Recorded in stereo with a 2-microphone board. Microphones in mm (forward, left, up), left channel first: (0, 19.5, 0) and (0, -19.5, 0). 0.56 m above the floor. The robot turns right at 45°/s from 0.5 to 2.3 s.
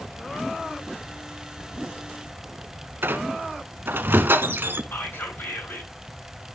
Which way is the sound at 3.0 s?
65° right (ahead or behind).